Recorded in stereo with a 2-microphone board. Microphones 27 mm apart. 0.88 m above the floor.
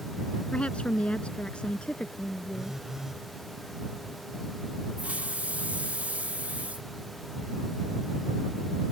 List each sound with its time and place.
0.5 s a woman speaking: 45° left (ahead or behind); by 2.8 s 40° left (ahead or behind)
2.5 s a phone buzzing: 20° right (ahead or behind)
5.0 s a hiss: 65° right (ahead or behind)